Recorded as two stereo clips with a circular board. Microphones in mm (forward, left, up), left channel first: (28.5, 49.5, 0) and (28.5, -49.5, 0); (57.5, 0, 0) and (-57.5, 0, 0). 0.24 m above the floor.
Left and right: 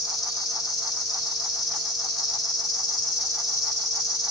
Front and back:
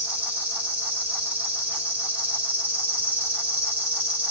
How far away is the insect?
About 2.5 m.